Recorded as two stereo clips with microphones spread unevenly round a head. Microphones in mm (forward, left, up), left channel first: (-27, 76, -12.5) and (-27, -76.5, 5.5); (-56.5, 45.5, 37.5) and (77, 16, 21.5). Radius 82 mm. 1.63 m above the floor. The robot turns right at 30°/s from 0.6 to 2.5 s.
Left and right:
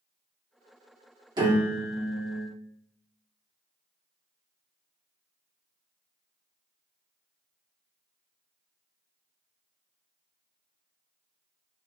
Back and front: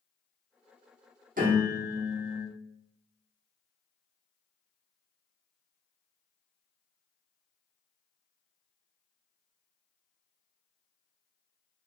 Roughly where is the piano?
Ahead right.